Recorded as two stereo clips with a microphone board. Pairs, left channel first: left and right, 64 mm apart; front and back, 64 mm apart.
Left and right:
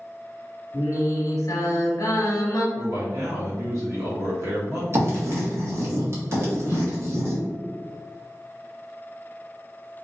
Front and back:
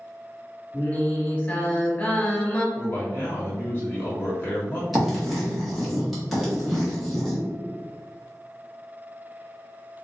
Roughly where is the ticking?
I don't hear ticking.